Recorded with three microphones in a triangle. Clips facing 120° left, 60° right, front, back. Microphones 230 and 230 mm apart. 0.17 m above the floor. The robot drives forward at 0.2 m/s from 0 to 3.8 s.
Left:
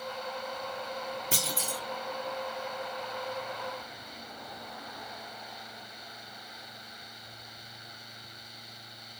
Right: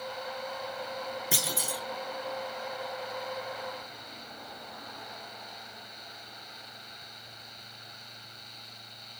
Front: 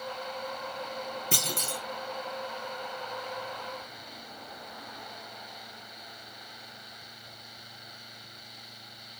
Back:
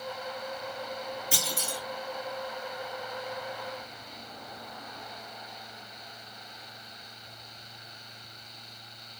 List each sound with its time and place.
1.3 s a clunk: 15° left, 0.8 m; by 1.8 s 20° left, 0.8 m